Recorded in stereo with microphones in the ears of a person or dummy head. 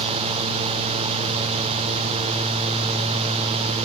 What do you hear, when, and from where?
Only background noise.